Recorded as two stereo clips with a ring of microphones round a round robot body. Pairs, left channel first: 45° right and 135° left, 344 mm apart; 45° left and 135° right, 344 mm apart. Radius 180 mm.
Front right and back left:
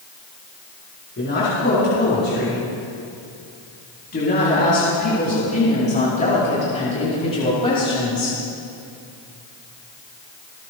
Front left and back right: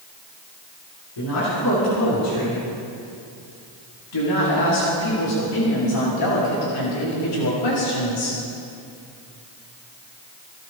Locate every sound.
1.2 s a woman speaking: 15° left, 7.5 m; by 8.4 s 35° left, 4.5 m